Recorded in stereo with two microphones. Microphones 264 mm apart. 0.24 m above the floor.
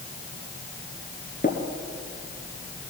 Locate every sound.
1.4 s tapping: 30° left (ahead or behind), 1.9 m